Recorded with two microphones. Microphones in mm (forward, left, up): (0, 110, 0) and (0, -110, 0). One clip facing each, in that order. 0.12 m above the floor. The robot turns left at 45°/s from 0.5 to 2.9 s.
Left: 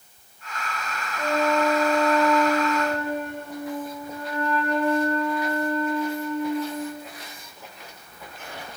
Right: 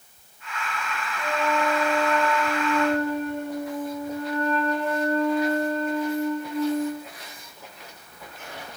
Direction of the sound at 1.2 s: 55° left.